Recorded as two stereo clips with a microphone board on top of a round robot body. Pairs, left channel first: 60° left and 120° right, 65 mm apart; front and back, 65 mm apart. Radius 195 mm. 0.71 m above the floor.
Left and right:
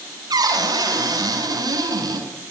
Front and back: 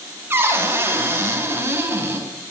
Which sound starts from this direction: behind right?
A cupboard door, at 0.3 s.